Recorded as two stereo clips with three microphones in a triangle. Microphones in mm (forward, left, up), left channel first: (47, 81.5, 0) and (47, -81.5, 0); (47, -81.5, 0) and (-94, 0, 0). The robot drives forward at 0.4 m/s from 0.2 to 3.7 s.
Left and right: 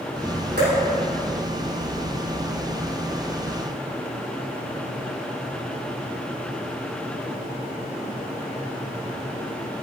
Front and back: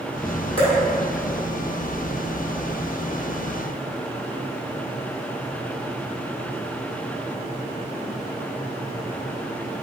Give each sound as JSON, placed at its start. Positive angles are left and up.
{"t": 0.6, "sound": "dripping", "azimuth_deg": -85, "distance_m": 4.5}